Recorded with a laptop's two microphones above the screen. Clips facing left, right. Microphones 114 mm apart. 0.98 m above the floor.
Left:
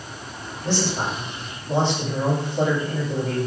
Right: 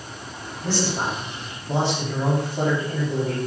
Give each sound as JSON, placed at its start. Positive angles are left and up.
{"t": 0.6, "sound": "a man speaking", "side_deg": 0, "distance_m": 2.5}